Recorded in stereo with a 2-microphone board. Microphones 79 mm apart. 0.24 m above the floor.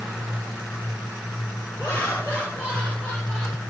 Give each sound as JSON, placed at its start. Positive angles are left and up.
{"t": 1.8, "sound": "laughter", "side_deg": 20, "distance_m": 5.0}